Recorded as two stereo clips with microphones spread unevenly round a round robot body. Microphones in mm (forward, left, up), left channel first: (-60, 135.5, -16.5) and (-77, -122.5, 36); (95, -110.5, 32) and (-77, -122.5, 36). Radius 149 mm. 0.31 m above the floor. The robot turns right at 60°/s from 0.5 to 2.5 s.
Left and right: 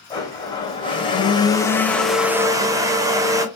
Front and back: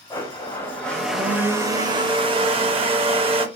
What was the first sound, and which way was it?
A blender, 60° left.